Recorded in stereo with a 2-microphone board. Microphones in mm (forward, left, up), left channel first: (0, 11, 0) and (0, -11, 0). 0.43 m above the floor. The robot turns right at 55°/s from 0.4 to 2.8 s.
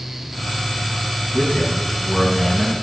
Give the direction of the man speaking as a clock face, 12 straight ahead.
8 o'clock.